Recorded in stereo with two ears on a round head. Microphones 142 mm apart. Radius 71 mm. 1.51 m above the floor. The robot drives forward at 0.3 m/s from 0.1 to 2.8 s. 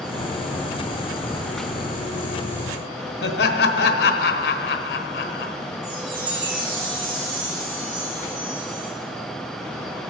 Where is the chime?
60° right (ahead or behind), 4 m.